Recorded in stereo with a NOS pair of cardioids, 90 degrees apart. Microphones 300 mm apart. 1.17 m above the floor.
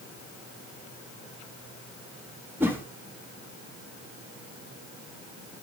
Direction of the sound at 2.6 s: 5° right.